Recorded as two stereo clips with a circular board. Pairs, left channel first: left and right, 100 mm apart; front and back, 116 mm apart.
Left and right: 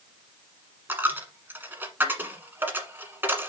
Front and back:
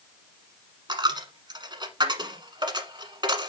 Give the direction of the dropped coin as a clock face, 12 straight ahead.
5 o'clock.